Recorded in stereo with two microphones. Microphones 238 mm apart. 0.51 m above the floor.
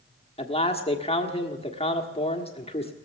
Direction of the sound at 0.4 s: 25° left (ahead or behind).